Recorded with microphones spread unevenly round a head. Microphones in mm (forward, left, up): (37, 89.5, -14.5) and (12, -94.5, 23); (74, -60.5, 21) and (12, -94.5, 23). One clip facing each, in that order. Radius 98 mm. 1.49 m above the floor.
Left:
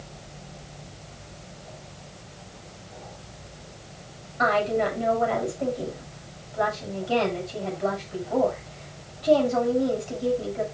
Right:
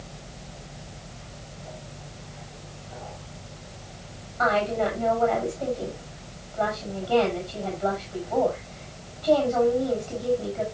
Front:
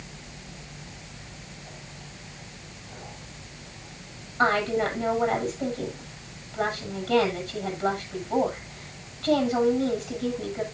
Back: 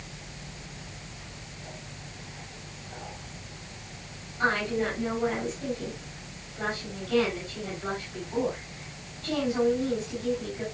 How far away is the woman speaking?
About 8 m.